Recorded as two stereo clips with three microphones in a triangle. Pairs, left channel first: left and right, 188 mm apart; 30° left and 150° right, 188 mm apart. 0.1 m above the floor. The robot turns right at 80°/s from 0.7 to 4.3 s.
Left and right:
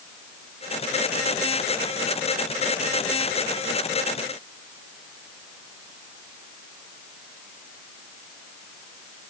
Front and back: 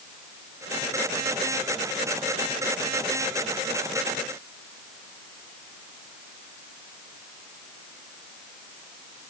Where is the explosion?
No explosion in this recording.